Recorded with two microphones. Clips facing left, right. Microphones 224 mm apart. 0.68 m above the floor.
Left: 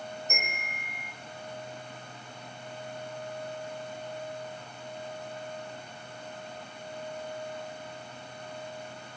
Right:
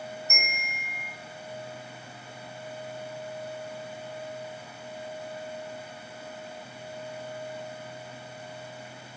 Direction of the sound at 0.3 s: 35° left (ahead or behind).